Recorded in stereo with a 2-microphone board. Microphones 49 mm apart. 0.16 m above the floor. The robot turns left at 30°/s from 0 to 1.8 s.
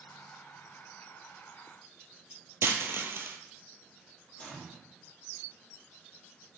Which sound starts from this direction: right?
A dropped coin, at 2.6 s.